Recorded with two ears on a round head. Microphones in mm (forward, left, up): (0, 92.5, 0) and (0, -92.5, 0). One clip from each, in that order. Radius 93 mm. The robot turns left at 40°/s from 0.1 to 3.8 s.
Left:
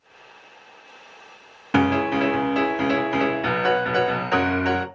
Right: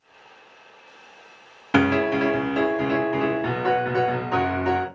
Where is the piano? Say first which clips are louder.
Even; 170° right, 0.6 m; by 4.9 s 105° left, 0.6 m.